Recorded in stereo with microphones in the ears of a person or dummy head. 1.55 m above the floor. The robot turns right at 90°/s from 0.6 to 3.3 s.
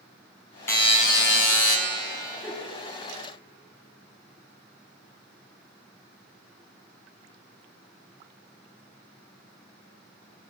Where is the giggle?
Centre (ahead or behind), 1.0 m; by 2.7 s 15° right (ahead or behind), 1.0 m.